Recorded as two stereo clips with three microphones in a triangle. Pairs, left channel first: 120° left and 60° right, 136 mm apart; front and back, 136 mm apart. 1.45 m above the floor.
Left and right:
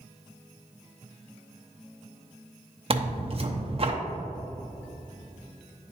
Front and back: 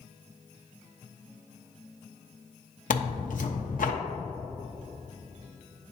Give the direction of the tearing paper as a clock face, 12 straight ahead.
12 o'clock.